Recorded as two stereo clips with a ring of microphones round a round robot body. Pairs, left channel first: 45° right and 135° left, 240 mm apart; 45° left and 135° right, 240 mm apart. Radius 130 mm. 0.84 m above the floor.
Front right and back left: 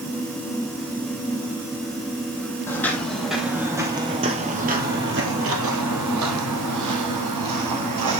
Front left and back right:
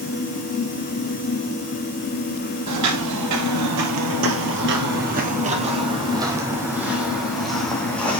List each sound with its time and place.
2.7 s footsteps: 125° right, 1.8 m; by 8.2 s 130° left, 2.5 m